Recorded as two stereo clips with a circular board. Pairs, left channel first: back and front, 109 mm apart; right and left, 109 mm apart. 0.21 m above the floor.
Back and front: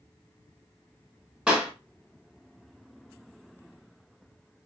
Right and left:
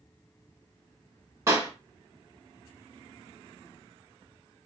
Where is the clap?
80° left, 1.2 m.